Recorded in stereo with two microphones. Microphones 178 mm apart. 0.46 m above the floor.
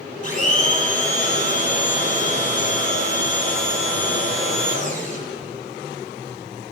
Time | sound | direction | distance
0.2 | a blender | 40° left (ahead or behind) | 5.5 m